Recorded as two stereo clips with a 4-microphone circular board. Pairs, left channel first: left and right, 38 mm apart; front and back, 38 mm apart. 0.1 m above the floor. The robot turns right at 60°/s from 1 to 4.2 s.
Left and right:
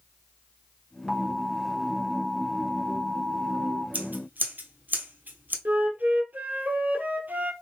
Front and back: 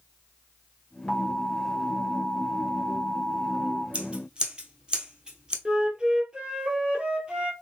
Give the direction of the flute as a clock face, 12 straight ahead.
4 o'clock.